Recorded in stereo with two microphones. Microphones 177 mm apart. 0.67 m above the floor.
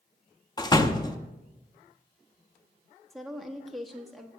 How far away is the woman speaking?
About 1.1 m.